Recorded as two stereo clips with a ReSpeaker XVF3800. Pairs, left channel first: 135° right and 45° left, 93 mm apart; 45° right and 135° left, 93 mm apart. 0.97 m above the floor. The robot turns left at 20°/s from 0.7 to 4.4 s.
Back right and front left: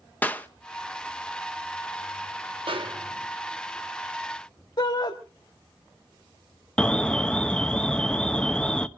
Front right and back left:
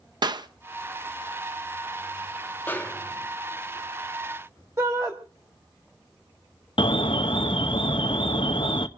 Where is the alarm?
55° right, 0.9 m.